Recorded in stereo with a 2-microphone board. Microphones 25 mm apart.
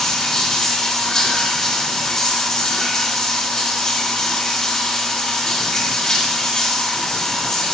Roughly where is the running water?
Left.